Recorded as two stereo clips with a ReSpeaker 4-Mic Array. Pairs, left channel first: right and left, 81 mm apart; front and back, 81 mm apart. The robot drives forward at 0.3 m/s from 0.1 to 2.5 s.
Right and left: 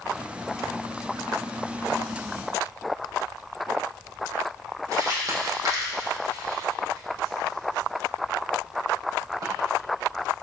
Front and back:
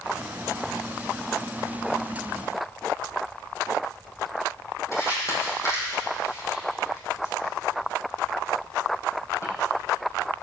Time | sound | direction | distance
4.9 | crumpling | 45° left | 5 m